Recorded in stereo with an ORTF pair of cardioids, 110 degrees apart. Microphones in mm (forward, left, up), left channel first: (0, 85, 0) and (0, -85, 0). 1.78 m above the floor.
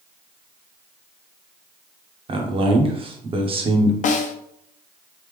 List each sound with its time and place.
2.3 s a man speaking: 35° right, 1.0 m
4.0 s a snare drum: 45° left, 0.6 m